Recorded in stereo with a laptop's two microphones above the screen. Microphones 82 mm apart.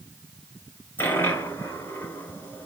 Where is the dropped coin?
30° left (ahead or behind), 2.5 m.